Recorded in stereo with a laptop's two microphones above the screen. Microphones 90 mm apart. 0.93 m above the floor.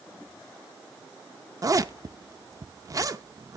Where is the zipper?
40° right (ahead or behind), 0.6 m.